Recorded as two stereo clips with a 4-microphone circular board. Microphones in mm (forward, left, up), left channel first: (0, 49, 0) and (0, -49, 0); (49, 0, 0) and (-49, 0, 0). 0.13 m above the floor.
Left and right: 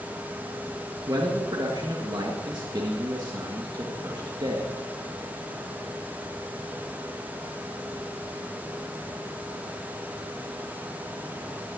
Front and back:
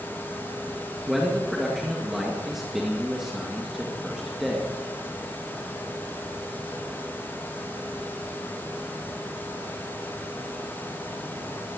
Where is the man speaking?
95° right, 1.9 m.